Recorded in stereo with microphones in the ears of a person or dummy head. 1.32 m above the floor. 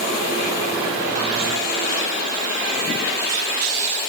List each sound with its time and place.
Only background noise.